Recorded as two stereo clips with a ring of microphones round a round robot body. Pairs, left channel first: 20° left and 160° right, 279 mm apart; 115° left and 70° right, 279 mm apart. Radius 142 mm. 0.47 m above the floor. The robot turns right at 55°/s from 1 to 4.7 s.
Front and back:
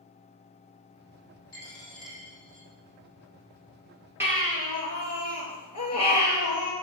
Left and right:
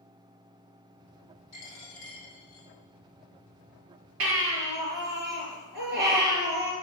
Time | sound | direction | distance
1.5 | a dropped coin | 85° left | 4 m
4.2 | a baby crying | 75° right | 4 m